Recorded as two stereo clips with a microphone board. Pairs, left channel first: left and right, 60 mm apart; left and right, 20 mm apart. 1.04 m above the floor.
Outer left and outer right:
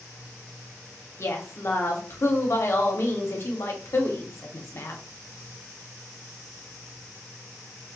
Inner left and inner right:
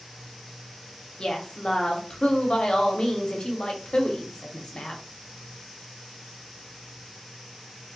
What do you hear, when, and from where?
1.2 s a woman speaking: 45° left (ahead or behind), 0.6 m